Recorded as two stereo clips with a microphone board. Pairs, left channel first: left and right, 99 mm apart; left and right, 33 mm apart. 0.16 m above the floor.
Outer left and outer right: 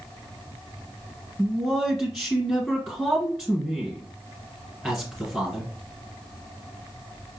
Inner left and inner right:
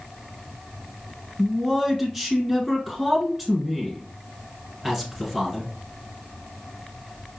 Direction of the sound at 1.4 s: 5° left (ahead or behind).